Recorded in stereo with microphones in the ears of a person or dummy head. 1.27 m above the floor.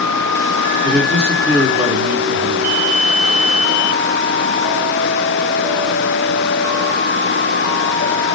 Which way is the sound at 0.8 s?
10° right (ahead or behind).